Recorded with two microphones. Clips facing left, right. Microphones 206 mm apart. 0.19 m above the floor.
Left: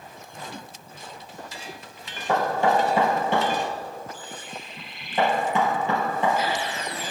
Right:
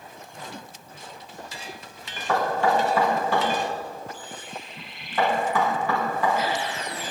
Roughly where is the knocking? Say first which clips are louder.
Left 1 dB; left.